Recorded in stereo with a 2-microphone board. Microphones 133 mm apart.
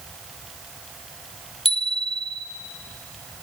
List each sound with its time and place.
1.6 s a bicycle bell: 45° left (ahead or behind), 2.5 m